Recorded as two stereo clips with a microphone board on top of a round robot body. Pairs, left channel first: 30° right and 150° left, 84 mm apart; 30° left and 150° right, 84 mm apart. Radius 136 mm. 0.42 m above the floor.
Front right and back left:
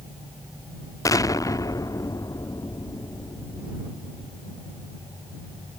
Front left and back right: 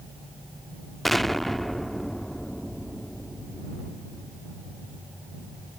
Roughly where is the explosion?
Ahead right.